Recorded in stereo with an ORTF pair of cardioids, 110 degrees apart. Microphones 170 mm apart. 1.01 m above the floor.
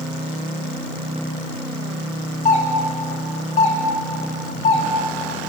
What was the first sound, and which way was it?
A doorbell, 45° left.